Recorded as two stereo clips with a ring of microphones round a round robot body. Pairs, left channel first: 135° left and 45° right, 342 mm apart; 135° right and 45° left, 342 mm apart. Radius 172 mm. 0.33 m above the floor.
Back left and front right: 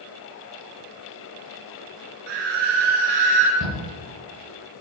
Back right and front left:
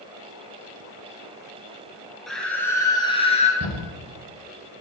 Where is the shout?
5° right, 6.5 m.